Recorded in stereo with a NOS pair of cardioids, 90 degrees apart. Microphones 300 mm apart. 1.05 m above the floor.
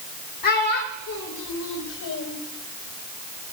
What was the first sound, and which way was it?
A child speaking, 70° left.